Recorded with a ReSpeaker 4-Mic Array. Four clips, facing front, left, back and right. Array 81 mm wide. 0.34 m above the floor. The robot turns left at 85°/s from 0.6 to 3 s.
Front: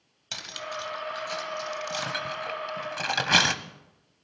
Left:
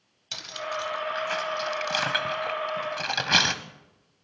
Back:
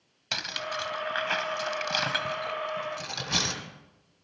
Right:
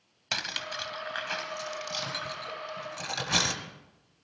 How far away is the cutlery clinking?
About 1.1 m.